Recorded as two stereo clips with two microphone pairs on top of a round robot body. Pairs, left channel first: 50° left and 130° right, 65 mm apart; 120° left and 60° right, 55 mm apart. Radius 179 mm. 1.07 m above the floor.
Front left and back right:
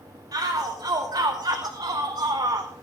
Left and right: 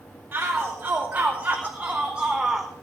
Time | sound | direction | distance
0.3 | a shout | 115° right | 3 m